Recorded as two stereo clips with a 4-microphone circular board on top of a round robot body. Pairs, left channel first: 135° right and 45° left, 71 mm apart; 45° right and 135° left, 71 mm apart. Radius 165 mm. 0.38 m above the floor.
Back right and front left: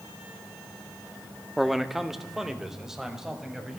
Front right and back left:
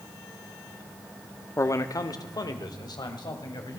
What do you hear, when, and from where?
1.6 s a man speaking: 45° right, 1.1 m; by 3.8 s 35° right, 3.5 m